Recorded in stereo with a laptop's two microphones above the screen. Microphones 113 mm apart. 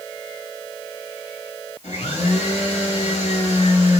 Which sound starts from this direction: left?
A blender, at 1.8 s.